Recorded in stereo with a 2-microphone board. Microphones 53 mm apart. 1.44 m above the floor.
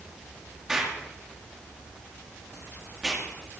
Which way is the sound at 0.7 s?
10° right (ahead or behind).